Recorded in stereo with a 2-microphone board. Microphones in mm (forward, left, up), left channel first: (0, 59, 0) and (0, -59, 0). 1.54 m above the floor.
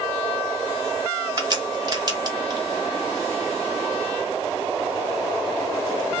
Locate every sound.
1.4 s a crack: 35° right (ahead or behind), 1.2 m